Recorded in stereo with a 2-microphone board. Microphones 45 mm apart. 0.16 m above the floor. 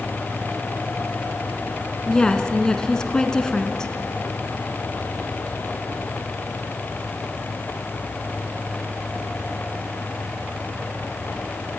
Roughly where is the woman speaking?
Centre.